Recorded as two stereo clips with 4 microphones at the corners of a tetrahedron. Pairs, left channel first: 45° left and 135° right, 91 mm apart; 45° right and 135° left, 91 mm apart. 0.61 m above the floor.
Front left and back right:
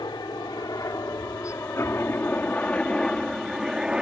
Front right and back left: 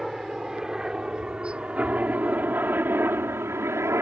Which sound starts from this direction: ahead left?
A helicopter, at 0.0 s.